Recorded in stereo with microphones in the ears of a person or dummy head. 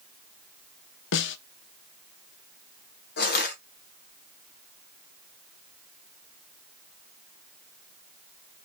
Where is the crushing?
55° left (ahead or behind), 1.2 m.